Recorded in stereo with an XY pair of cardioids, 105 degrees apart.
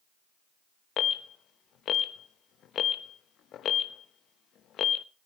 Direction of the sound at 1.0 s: 70° left.